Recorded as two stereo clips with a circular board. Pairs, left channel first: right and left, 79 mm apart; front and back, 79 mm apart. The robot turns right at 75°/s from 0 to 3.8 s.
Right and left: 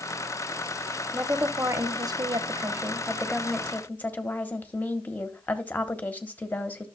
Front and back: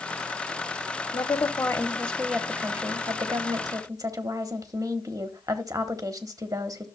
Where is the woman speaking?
5° left, 0.9 m; by 6.9 s 155° right, 0.9 m.